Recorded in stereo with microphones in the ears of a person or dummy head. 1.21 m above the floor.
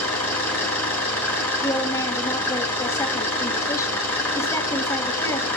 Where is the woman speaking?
15° left (ahead or behind), 3.5 m.